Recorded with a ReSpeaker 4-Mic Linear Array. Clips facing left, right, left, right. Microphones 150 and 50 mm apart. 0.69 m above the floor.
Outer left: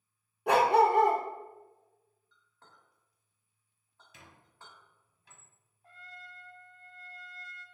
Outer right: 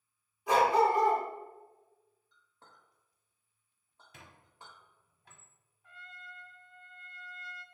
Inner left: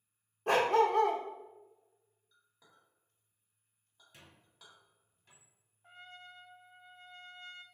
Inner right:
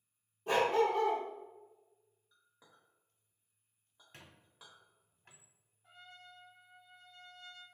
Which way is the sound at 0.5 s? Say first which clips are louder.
Outer left 2 dB, inner left 3 dB; 65° left (ahead or behind).